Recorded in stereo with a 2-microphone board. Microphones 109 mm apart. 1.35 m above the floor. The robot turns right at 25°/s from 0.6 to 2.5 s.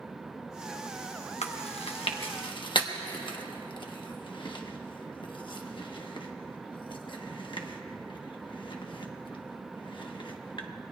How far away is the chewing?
About 1.1 m.